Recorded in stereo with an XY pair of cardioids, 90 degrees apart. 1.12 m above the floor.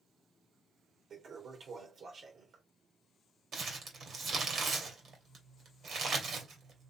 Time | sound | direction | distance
1.1 | a toilet flushing | 65° right | 2 m
3.5 | crumpling | 60° right | 2 m